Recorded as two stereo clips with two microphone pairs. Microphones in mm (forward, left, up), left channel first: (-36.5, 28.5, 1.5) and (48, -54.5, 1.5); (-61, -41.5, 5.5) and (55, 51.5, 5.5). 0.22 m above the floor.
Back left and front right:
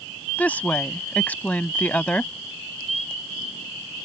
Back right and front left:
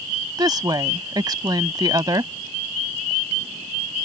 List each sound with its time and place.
0.4 s a woman speaking: 70° left